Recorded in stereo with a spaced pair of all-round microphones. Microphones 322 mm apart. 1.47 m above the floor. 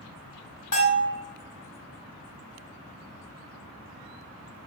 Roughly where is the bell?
Left.